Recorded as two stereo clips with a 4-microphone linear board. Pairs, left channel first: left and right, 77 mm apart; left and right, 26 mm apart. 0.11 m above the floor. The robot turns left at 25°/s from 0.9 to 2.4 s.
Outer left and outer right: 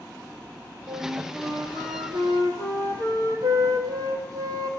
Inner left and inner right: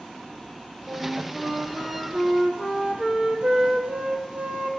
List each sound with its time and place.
0.9 s a flute: 30° right, 2.5 m; by 4.7 s 70° right, 2.5 m